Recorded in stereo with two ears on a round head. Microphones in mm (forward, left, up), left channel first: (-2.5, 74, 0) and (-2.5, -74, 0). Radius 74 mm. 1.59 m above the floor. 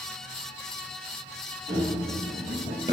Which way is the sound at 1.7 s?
25° right (ahead or behind).